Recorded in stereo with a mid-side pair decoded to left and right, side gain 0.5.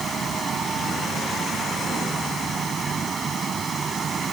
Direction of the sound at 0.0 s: 40° right.